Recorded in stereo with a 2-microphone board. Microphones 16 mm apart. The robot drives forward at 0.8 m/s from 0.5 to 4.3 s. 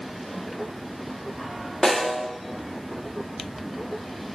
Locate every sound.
1.8 s a snare drum: 75° left (ahead or behind), 2.5 m; by 2.3 s 65° left (ahead or behind), 3 m